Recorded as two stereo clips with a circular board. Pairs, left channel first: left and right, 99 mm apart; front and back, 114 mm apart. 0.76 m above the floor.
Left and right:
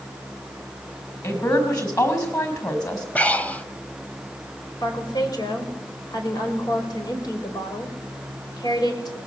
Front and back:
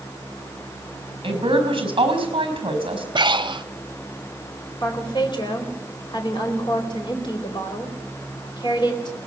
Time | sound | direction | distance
1.2 | a woman speaking | 135° left | 5 m
3.1 | breathing | 160° left | 0.7 m
4.8 | a woman speaking | 45° left | 4 m